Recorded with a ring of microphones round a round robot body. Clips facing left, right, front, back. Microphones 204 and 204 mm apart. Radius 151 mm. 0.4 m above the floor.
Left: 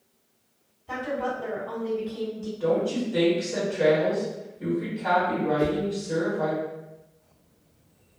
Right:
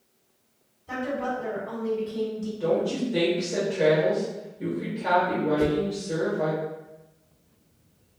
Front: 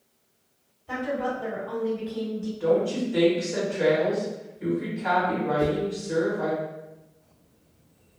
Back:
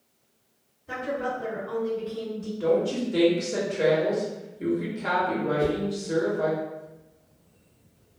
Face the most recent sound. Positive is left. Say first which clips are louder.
# right 2 dB, front 1 dB
turn(degrees=-55)